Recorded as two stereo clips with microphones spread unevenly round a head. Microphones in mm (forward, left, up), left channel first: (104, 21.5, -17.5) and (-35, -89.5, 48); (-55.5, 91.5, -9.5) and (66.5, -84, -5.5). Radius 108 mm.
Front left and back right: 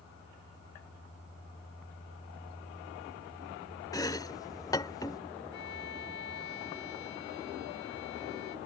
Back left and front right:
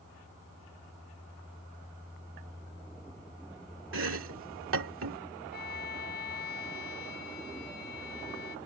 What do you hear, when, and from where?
3.9 s chopping: 40° right
5.5 s a violin: 80° left